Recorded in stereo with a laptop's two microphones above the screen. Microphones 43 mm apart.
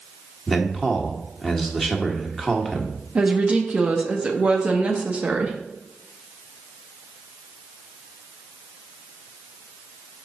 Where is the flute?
No flute in this recording.